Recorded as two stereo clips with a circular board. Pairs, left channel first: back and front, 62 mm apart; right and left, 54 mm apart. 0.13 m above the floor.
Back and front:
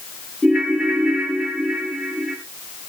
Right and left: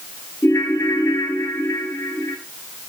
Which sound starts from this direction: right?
A ringtone, at 0.4 s.